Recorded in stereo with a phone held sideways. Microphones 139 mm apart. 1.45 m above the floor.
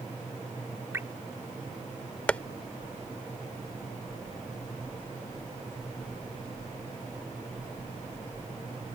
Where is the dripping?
20° right (ahead or behind).